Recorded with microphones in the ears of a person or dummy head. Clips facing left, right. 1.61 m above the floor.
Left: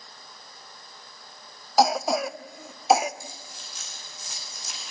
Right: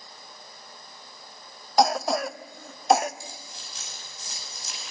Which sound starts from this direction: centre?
A cough, at 1.8 s.